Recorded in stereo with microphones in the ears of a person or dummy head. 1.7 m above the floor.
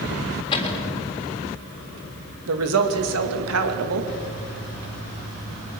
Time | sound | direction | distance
0.5 | a cupboard door | 25° left (ahead or behind) | 3.5 m
2.5 | a woman speaking | 85° right | 2.5 m